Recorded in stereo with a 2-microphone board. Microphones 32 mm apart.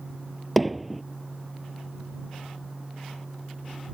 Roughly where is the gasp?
I don't hear a gasp.